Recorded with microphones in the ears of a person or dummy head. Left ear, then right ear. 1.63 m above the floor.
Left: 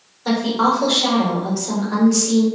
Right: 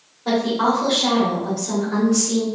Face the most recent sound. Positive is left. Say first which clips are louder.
# left 1 dB
turn(degrees=85)